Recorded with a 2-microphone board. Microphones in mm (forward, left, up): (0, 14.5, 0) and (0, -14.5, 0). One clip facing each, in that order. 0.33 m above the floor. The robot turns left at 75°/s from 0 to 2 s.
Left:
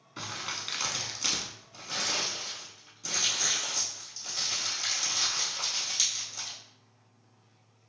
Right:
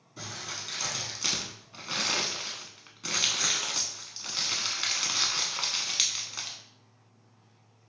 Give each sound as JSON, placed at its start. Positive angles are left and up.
{"t": 0.2, "sound": "crumpling", "side_deg": 75, "distance_m": 0.6}